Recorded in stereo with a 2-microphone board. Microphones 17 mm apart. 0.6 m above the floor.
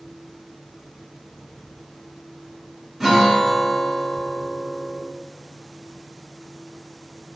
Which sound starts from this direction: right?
A guitar, at 3.0 s.